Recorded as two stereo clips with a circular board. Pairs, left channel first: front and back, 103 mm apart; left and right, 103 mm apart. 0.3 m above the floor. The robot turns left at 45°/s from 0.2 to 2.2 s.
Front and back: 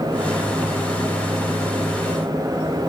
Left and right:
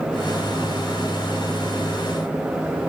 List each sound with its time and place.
Only background noise.